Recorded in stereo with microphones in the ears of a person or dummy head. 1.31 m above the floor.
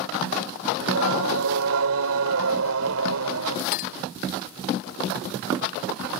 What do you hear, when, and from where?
0.8 s singing: 75° right (ahead or behind)
3.7 s a clink: 55° left (ahead or behind)